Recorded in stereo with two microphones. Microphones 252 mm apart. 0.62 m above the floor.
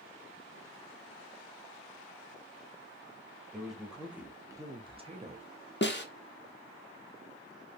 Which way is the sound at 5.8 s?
45° left (ahead or behind).